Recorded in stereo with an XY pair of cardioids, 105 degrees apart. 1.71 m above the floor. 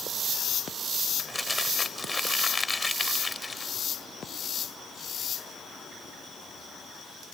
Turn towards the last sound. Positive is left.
turn(degrees=20)